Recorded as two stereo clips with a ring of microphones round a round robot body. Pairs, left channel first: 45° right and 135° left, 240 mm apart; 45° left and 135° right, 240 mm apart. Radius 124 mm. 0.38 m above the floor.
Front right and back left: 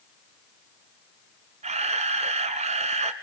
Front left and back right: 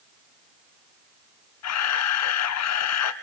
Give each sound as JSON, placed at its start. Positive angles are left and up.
{"t": 1.6, "sound": "a camera shutter", "azimuth_deg": 70, "distance_m": 1.2}